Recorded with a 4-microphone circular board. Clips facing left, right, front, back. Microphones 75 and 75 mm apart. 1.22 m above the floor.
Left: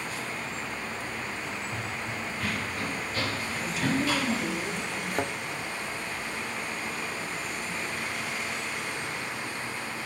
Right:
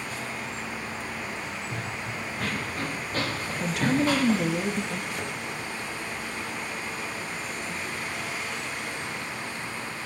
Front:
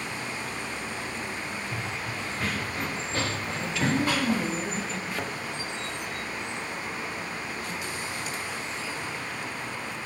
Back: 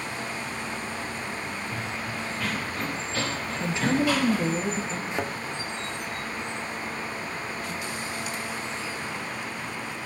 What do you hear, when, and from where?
1.7 s running footsteps: 55° right, 5.5 m; by 4.4 s 45° right, 7.5 m
3.6 s a woman speaking: 115° right, 1.6 m
5.1 s a thud: 120° left, 1.0 m